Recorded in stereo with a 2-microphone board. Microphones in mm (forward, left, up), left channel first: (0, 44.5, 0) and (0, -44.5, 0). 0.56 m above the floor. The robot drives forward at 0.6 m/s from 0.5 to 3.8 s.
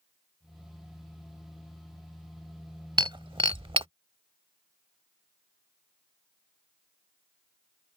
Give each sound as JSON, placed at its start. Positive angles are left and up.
{"t": 3.0, "sound": "breaking glass", "side_deg": -65}